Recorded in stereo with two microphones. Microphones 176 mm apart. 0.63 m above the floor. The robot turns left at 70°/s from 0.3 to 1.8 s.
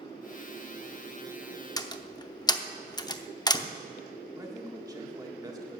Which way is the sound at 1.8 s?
20° left (ahead or behind).